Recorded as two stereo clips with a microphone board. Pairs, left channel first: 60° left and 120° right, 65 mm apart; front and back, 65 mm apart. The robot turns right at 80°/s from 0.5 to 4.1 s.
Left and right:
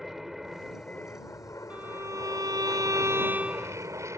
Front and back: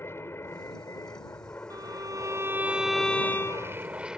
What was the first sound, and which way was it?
An aircraft, 35° right.